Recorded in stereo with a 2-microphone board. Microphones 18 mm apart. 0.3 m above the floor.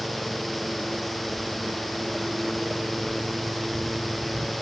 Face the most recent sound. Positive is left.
turn(degrees=15)  # may be behind; listen again after turning